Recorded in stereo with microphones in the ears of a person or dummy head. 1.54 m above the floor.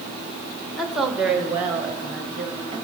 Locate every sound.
0.8 s a woman speaking: centre (ahead or behind), 1.6 m; by 2.8 s 20° right (ahead or behind), 2.5 m